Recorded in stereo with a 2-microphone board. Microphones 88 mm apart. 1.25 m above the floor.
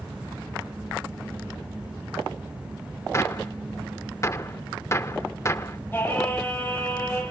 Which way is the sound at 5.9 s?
20° left (ahead or behind).